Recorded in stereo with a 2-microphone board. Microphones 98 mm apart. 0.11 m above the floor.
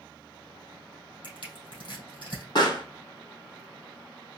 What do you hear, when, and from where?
1.2 s crushing: 65° left (ahead or behind), 3 m
2.5 s a pop: 55° left (ahead or behind), 2.5 m